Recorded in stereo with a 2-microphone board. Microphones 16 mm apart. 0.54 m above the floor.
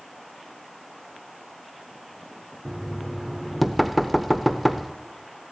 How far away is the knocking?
About 0.8 m.